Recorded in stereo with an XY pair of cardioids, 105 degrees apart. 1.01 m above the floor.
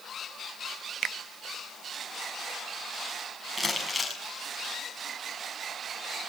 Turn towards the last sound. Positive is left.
turn(degrees=10)